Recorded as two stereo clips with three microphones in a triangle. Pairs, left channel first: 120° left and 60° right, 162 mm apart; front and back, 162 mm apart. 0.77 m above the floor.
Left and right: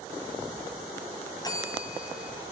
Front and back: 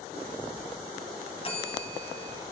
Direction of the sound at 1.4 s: 55° left.